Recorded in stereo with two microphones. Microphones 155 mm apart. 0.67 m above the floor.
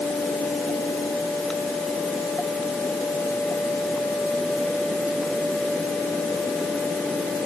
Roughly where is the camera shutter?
No camera shutter in this recording.